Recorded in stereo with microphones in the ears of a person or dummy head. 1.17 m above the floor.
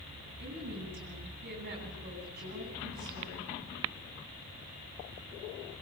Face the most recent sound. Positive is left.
turn(degrees=-50)  # may be behind; listen again after turning